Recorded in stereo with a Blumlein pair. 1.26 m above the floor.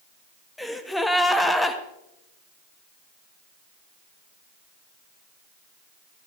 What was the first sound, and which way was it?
A gasp, 5° left.